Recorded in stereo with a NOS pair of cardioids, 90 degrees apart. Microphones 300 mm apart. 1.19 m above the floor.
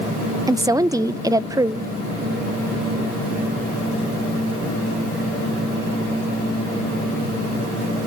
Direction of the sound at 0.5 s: 10° right.